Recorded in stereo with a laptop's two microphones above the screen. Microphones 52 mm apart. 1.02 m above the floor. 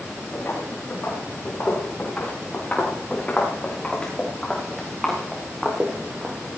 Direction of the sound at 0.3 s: 45° left (ahead or behind).